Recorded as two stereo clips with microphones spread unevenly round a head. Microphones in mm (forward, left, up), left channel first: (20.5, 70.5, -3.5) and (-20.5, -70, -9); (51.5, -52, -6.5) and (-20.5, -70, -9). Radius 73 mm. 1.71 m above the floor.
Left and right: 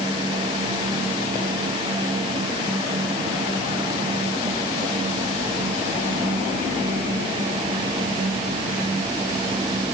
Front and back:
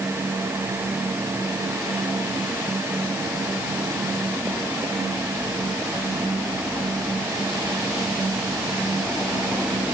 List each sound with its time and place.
Only background noise.